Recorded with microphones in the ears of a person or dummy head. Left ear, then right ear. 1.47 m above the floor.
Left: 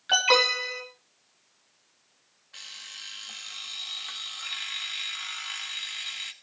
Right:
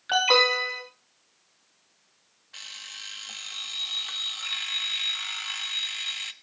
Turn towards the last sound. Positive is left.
turn(degrees=-5)  # may be behind; listen again after turning